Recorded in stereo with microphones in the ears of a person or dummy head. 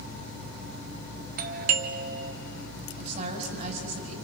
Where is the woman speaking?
45° right (ahead or behind), 5 m.